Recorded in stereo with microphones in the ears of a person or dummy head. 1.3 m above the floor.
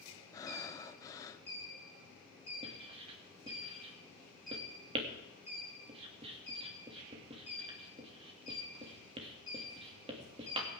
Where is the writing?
35° right (ahead or behind), 2.5 m.